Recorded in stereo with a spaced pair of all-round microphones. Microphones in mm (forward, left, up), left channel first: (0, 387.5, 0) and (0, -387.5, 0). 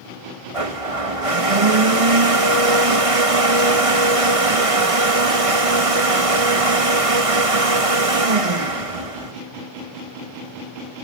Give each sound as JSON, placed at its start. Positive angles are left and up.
{"t": 0.5, "sound": "a blender", "side_deg": -40, "distance_m": 1.7}